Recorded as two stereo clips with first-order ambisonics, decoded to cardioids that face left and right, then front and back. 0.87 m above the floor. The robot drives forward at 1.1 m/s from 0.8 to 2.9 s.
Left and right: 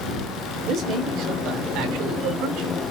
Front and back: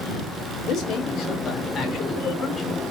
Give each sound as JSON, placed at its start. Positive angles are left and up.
{"t": 0.6, "sound": "a man speaking", "azimuth_deg": -45, "distance_m": 4.0}